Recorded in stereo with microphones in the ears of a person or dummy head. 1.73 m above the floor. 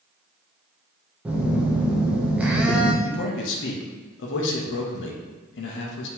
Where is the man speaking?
70° left (ahead or behind), 0.7 m.